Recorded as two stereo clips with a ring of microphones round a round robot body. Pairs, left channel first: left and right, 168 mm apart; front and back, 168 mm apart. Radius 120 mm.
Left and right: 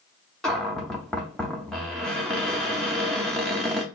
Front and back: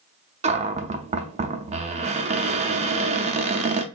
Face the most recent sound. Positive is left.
turn(degrees=175)